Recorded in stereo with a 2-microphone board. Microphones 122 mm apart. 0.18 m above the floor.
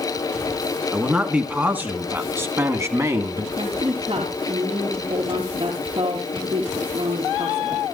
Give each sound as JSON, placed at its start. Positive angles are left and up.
{"t": 0.9, "sound": "a man speaking", "side_deg": -10, "distance_m": 2.0}
{"t": 3.6, "sound": "a woman speaking", "side_deg": -50, "distance_m": 3.0}